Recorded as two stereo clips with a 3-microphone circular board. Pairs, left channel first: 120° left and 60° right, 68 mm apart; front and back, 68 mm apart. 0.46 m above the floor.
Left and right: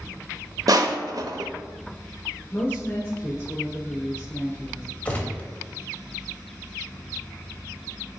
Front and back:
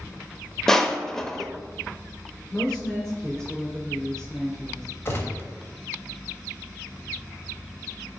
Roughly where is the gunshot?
Ahead left.